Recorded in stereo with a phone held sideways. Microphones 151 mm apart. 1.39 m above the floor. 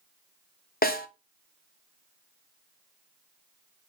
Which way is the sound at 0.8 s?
80° left.